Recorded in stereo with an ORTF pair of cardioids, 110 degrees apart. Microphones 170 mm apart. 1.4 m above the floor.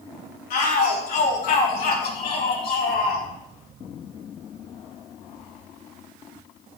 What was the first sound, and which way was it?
A shout, 70° left.